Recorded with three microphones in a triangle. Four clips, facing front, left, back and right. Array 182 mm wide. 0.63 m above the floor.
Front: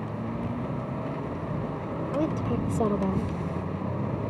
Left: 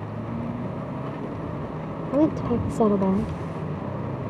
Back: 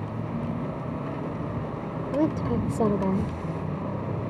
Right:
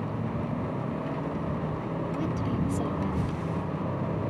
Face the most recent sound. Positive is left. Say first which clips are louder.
# left 13 dB, back 3 dB
turn(degrees=100)